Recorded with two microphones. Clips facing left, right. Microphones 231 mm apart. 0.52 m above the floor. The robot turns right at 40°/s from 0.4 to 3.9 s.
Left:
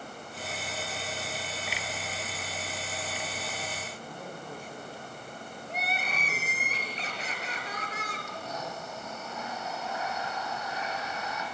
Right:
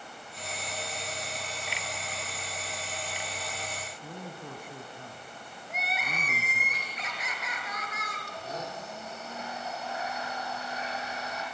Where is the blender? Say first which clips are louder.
Right 2 dB; 35° right (ahead or behind), 7 m.